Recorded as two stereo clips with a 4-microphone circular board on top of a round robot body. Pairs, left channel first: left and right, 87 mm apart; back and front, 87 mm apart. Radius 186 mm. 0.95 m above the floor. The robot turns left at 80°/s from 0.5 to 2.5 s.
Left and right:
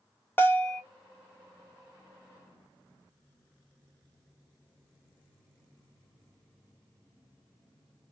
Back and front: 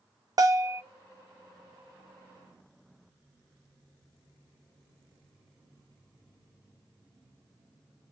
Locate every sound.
0.4 s a bell: 30° left, 0.6 m; by 0.8 s 5° left, 0.6 m